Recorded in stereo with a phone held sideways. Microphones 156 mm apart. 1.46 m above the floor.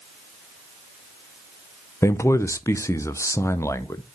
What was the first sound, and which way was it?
A man speaking, 15° left (ahead or behind).